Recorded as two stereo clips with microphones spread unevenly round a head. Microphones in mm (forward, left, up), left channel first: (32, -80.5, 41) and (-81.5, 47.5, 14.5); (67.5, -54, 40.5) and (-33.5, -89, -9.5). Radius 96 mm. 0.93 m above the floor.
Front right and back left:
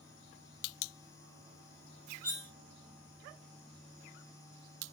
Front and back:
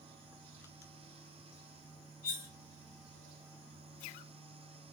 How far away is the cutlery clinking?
About 1.3 m.